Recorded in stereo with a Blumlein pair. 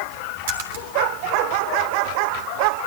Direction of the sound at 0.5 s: 55° right.